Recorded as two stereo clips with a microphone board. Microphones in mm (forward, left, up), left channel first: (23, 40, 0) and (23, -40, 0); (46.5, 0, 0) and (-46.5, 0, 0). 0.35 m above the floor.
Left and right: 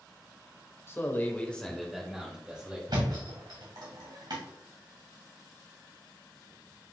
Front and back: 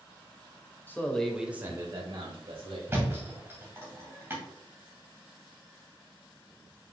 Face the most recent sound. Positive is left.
turn(degrees=-110)